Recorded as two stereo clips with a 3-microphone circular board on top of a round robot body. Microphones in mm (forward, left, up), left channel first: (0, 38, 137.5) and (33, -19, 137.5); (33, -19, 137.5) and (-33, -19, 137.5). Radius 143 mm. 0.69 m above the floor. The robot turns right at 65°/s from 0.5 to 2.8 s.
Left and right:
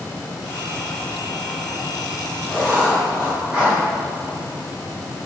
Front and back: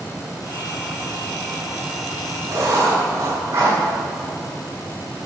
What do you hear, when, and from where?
2.5 s writing: 150° right, 5.5 m; by 3.8 s 130° right, 5.5 m